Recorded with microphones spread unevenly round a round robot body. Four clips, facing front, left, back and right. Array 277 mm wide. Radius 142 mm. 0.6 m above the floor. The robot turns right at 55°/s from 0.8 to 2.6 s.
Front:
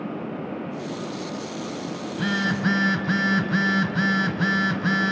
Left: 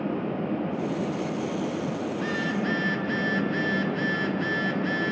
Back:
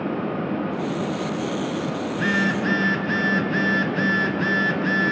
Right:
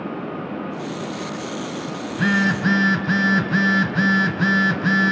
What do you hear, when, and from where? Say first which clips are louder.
2.1 s a phone buzzing: right 7 dB, back 2 dB; 95° right, 1.0 m; by 5.1 s 70° right, 1.0 m